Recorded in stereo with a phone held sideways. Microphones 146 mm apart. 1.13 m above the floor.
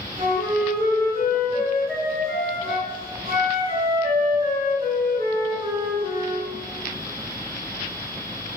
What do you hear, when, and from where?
0.2 s a flute: 40° right (ahead or behind), 8.5 m